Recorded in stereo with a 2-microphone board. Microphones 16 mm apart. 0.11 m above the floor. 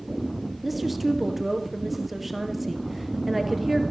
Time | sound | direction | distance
0.6 | a woman speaking | 10° right (ahead or behind) | 2 m